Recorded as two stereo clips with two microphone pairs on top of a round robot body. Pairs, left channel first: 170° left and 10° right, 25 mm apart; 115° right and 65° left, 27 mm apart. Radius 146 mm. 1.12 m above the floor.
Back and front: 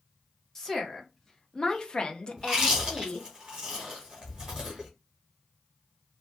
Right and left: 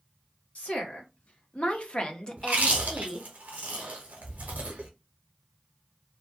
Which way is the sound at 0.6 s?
110° right.